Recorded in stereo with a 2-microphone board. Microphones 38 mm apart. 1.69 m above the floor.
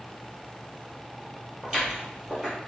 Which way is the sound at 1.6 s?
5° right (ahead or behind).